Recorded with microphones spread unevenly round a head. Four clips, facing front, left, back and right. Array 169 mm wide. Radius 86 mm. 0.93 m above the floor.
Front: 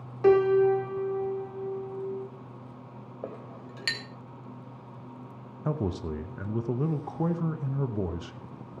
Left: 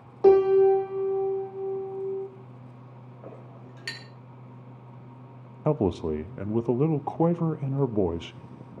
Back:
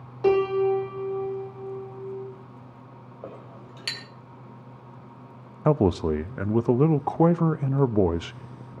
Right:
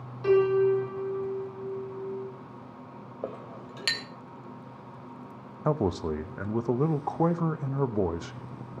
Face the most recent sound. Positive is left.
turn(degrees=180)